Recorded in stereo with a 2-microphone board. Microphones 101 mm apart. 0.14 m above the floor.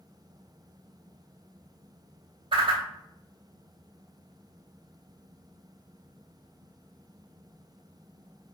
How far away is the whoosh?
About 0.6 m.